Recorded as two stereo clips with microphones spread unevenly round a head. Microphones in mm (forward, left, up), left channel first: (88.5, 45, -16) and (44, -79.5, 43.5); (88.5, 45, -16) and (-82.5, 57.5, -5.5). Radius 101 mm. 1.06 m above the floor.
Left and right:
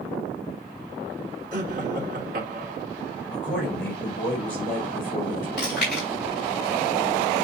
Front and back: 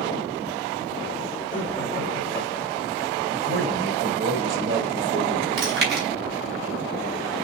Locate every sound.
1.5 s laughter: 85° right, 2.5 m
3.3 s a man speaking: 150° left, 5.5 m
5.6 s chewing: 165° left, 4.5 m